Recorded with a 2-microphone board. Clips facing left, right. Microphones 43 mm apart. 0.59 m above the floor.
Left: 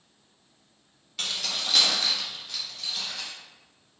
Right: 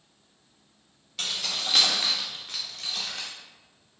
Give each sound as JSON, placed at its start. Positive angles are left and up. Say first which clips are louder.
{"t": 1.2, "sound": "keys jangling", "louder": "even", "side_deg": 5, "distance_m": 1.3}